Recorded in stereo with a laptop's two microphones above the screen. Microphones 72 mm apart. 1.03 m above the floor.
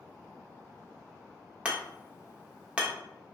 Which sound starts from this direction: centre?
Hammering, at 1.6 s.